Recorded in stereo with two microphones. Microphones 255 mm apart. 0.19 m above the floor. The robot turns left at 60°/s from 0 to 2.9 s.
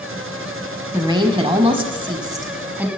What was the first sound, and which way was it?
A woman speaking, 15° right (ahead or behind).